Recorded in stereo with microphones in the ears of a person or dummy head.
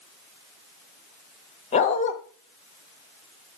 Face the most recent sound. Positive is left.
turn(degrees=40)  # may be behind; listen again after turning